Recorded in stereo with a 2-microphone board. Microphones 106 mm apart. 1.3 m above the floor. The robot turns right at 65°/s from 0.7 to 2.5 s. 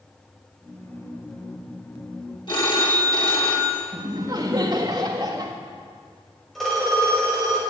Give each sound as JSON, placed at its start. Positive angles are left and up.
{"t": 2.5, "sound": "a phone ringing", "side_deg": 45, "distance_m": 2.0}
{"t": 3.9, "sound": "laughter", "side_deg": -40, "distance_m": 1.8}
{"t": 6.5, "sound": "a phone ringing", "side_deg": 5, "distance_m": 5.0}